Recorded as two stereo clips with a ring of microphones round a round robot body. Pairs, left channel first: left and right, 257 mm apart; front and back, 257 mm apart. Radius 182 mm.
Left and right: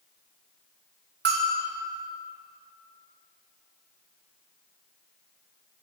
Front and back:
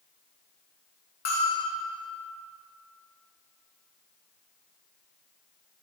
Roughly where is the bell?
Ahead right.